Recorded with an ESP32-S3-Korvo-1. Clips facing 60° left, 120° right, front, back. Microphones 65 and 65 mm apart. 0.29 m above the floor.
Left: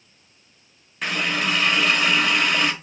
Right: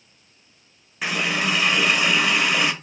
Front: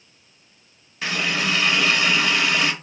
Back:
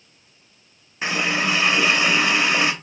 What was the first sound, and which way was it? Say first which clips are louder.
A running tap: even, back 2 dB; 165° left.